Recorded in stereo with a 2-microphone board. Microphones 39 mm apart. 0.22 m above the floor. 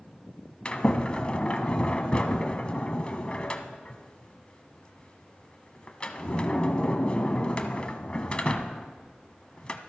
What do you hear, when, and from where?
0.7 s a sliding door: 30° left (ahead or behind), 1.0 m